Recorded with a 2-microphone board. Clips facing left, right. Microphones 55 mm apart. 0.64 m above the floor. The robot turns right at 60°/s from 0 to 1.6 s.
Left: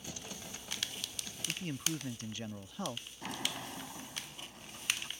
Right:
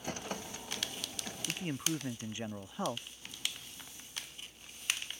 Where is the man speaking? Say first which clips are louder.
Right 2 dB; 20° right (ahead or behind).